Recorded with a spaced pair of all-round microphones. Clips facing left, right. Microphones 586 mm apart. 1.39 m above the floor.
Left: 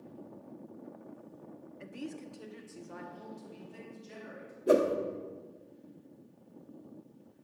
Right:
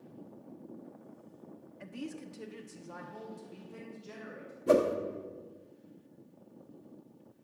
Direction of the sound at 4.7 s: 25° right (ahead or behind).